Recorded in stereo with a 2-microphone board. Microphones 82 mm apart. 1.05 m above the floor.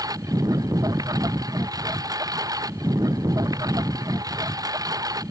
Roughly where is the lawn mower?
Right.